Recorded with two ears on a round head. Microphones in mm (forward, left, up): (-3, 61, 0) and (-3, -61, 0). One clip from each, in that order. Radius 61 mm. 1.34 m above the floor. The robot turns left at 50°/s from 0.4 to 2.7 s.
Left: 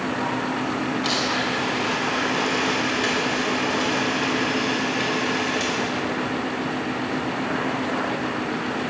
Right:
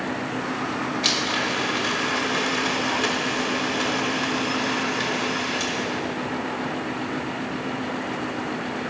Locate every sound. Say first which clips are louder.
1.0 s a blender: right 2 dB; 75° right, 5 m; by 6.0 s 160° right, 5 m